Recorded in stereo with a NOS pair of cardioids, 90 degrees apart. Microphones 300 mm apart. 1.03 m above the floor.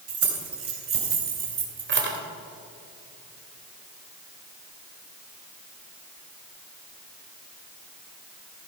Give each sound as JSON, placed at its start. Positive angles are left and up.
{"t": 0.1, "sound": "keys jangling", "azimuth_deg": -50, "distance_m": 4.0}